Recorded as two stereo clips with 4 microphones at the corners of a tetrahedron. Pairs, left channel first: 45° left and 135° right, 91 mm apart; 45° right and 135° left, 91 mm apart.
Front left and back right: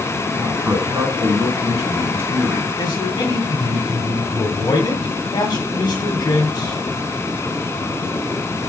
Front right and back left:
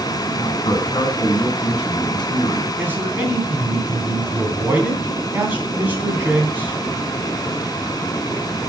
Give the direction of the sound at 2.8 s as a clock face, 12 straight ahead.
10 o'clock.